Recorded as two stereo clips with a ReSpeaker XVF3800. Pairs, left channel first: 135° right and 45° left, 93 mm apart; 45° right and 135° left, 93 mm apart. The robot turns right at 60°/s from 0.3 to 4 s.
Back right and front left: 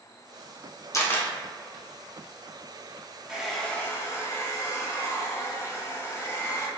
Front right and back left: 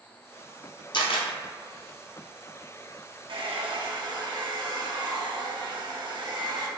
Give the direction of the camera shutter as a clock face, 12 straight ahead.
3 o'clock.